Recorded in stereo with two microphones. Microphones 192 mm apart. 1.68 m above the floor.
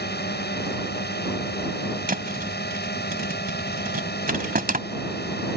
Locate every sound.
0.0 s a drone: 60° left (ahead or behind)
2.1 s a thud: 50° right (ahead or behind)